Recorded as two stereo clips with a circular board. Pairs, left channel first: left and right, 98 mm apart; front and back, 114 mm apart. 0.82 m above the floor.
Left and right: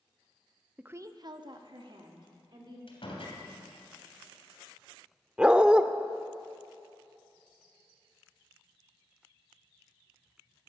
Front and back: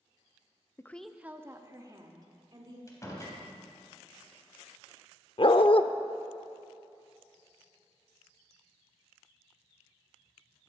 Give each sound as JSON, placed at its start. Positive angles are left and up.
{"t": 0.8, "sound": "a woman speaking", "azimuth_deg": -25, "distance_m": 0.5}
{"t": 2.9, "sound": "a door slam", "azimuth_deg": 60, "distance_m": 3.0}
{"t": 5.4, "sound": "a dog barking", "azimuth_deg": -10, "distance_m": 0.6}